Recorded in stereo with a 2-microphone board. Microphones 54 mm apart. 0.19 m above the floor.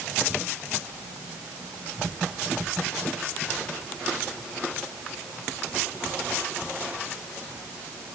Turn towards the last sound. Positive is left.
No sound to turn to.